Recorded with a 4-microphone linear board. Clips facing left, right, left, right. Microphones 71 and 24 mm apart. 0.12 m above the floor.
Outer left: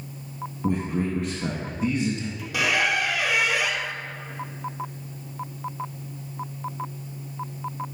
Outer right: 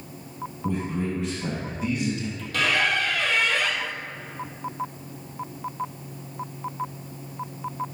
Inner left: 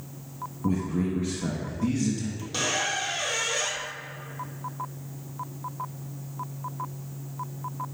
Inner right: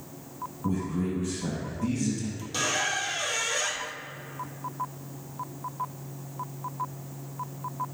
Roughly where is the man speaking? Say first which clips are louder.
Outer left 2 dB, inner left 2 dB; left.